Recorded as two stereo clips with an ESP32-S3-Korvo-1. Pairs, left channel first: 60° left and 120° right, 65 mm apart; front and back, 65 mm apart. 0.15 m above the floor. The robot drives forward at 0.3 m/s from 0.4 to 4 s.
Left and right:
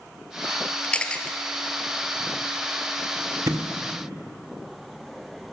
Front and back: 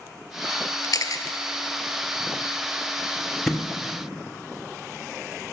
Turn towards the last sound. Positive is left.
turn(degrees=-90)